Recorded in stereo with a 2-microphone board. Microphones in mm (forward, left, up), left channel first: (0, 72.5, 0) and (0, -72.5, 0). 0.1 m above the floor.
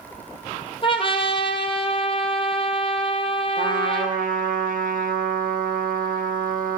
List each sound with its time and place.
0.8 s a trumpet: 40° left (ahead or behind), 2.5 m
3.6 s a trumpet: 70° right (ahead or behind), 3 m